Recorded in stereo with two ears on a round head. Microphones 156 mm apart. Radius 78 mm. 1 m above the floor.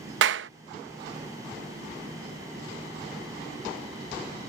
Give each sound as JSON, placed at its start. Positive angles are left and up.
{"t": 0.2, "sound": "a clap", "side_deg": -75}